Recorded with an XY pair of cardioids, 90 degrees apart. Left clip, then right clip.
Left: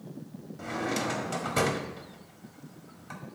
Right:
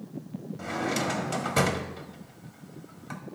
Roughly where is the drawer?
Ahead right.